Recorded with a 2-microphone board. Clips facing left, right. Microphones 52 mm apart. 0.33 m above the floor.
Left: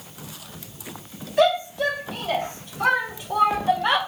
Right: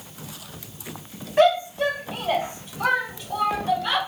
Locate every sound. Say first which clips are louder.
1.4 s a shout: right 1 dB; 40° right (ahead or behind), 2.5 m; by 4.0 s 40° left (ahead or behind), 2 m